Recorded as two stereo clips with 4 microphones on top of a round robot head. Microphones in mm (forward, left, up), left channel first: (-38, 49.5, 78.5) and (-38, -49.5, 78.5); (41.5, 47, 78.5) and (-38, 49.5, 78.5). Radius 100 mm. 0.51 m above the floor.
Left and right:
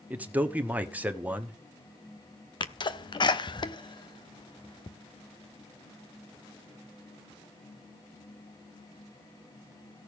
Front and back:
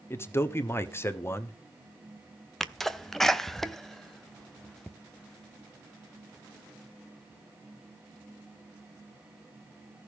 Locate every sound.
0.1 s a man speaking: 25° right, 1.3 m
2.6 s a sneeze: 85° left, 1.2 m